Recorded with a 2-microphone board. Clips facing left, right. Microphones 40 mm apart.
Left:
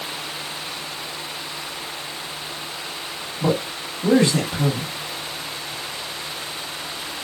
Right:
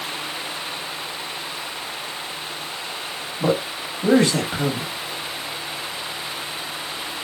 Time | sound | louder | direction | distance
3.4 | a man speaking | right 1 dB | 60° right (ahead or behind) | 1.5 m